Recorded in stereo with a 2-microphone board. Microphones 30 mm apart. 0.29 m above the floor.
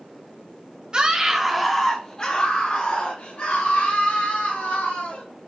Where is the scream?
30° right (ahead or behind), 1.0 m; by 5.2 s 70° left (ahead or behind), 3 m.